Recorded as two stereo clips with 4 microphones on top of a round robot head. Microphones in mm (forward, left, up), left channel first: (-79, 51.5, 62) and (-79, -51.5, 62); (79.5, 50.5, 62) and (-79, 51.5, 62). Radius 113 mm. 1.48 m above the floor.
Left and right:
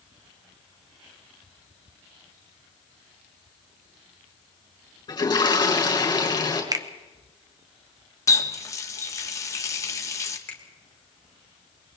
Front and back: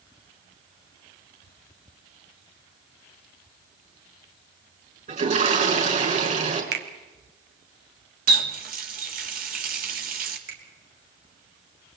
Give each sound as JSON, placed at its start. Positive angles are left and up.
{"t": 5.1, "sound": "a toilet flushing", "azimuth_deg": 140, "distance_m": 5.5}
{"t": 6.7, "sound": "a finger snap", "azimuth_deg": -145, "distance_m": 1.3}
{"t": 8.3, "sound": "a running tap", "azimuth_deg": 150, "distance_m": 2.0}
{"t": 10.5, "sound": "a finger snap", "azimuth_deg": 165, "distance_m": 4.0}